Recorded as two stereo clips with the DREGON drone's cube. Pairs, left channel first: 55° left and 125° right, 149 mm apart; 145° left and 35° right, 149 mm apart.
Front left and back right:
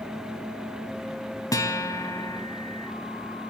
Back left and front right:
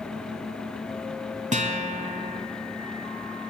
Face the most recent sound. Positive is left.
turn(degrees=-5)